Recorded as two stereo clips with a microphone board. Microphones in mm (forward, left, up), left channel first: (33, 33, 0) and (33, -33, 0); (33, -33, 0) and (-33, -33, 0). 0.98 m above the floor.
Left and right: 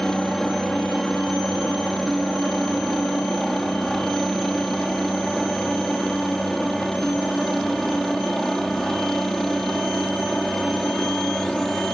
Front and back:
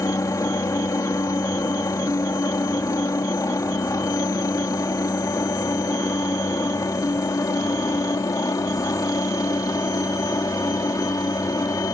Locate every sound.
0.0 s a helicopter: 5° left